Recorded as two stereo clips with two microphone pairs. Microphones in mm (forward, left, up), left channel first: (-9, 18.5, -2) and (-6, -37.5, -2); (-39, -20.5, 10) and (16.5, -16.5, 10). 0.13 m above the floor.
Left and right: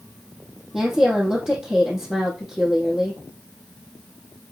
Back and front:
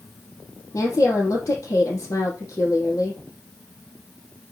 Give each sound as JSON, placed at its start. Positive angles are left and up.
{"t": 0.7, "sound": "a woman speaking", "azimuth_deg": -175, "distance_m": 3.5}